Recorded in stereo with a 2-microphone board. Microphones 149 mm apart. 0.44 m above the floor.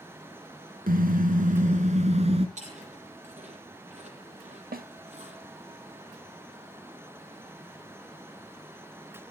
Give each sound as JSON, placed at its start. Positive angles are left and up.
{"t": 0.9, "sound": "a car horn", "side_deg": -75, "distance_m": 2.0}
{"t": 2.6, "sound": "chewing", "side_deg": -50, "distance_m": 10.0}
{"t": 4.7, "sound": "a snare drum", "side_deg": -80, "distance_m": 0.9}